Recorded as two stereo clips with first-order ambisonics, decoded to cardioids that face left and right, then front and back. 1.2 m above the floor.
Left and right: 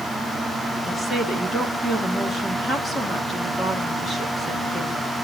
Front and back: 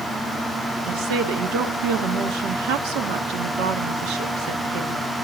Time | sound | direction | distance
0.9 | a woman speaking | 170° left | 2 m